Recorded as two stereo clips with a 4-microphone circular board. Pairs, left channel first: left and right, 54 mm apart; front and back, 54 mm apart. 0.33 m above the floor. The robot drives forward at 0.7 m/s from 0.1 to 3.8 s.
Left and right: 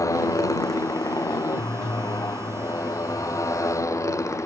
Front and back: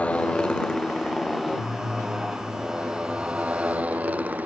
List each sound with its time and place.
0.0 s a motorcycle: 65° left; by 4.5 s 115° left